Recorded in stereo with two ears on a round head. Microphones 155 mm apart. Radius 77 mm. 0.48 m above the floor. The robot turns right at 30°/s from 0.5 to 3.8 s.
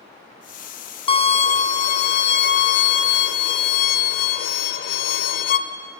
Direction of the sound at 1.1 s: 35° left.